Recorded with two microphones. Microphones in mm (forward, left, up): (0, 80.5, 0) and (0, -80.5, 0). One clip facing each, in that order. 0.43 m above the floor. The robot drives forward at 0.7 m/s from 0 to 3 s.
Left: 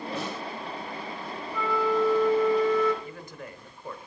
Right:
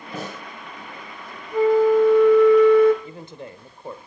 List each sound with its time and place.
0.1 s a snare drum: 50° right (ahead or behind), 2 m
1.5 s a flute: 35° right (ahead or behind), 0.8 m; by 2.9 s 50° right (ahead or behind), 0.6 m
3.0 s a man speaking: 25° right (ahead or behind), 1.2 m